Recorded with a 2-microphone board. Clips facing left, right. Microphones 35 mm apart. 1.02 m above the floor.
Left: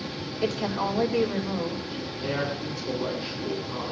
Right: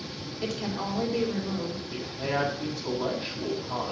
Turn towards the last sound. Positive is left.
turn(degrees=-75)  # may be behind; listen again after turning